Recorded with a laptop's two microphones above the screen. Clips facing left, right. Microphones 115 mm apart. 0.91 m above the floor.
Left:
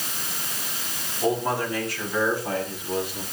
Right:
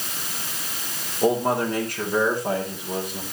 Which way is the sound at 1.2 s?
50° right (ahead or behind).